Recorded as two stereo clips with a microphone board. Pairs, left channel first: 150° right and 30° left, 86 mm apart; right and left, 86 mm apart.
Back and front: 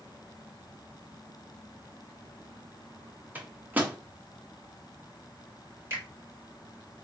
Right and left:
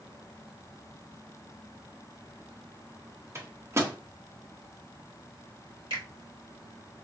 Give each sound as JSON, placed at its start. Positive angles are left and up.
{"t": 3.4, "sound": "a microwave", "azimuth_deg": 85, "distance_m": 0.6}
{"t": 5.9, "sound": "a finger snap", "azimuth_deg": 90, "distance_m": 2.5}